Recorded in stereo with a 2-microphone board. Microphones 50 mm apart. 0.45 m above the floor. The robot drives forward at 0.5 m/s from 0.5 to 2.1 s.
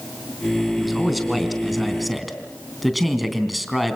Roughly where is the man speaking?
Centre.